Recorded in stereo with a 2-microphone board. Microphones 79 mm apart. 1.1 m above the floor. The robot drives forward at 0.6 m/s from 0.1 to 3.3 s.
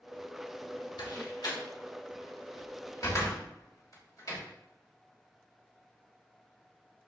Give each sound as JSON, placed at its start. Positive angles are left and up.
{"t": 1.0, "sound": "a door slam", "side_deg": 65, "distance_m": 2.5}